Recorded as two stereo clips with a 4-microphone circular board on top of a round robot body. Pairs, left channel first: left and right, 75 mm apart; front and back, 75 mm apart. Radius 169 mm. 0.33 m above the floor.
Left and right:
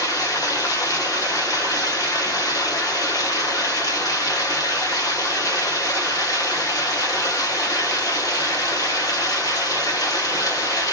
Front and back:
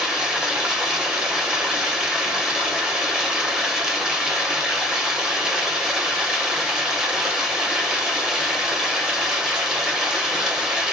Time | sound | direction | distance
0.0 | running water | 100° left | 1.7 m